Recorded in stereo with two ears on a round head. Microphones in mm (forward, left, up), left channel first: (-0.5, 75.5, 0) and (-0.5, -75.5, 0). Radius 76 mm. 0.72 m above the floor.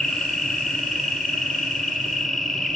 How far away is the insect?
About 2 m.